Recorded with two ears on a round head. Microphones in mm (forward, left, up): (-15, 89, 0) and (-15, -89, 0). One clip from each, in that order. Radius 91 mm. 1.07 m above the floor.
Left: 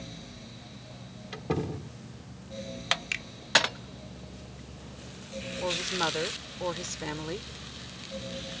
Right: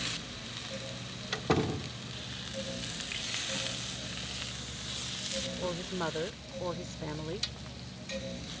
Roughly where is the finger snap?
Left.